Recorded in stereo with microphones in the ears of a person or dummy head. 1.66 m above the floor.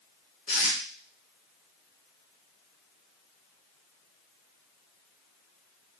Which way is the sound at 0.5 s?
40° left (ahead or behind).